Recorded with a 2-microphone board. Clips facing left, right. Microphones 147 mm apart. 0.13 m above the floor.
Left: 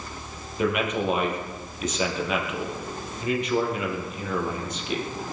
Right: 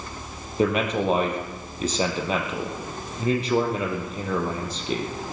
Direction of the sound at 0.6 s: 35° right (ahead or behind).